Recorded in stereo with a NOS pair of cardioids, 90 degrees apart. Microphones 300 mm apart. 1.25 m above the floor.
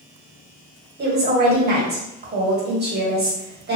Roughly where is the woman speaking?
Ahead right.